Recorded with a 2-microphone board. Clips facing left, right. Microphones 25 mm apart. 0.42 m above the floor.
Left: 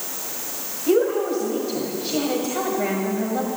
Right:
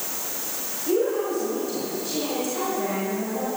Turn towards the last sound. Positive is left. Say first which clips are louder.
# left 4 dB
turn(degrees=35)  # may be behind; listen again after turning